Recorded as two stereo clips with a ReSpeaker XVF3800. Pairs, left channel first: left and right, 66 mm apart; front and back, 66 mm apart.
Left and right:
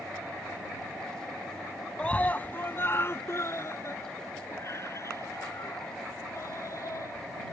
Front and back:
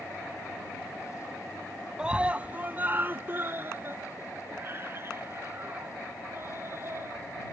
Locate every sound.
2.0 s a scream: 125° left; by 7.2 s 130° left